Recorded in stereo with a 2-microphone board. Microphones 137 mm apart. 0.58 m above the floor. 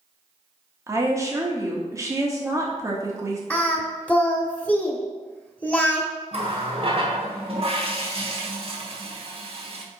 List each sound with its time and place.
0.9 s a woman speaking: 25° right (ahead or behind), 1.1 m
3.5 s singing: 10° left (ahead or behind), 1.0 m
6.3 s a running tap: 45° right (ahead or behind), 1.1 m